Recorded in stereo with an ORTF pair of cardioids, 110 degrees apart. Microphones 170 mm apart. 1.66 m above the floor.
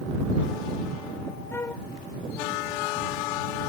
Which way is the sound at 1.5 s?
15° left.